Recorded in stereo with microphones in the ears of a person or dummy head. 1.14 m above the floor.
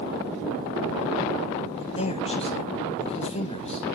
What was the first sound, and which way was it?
A man speaking, 35° left (ahead or behind).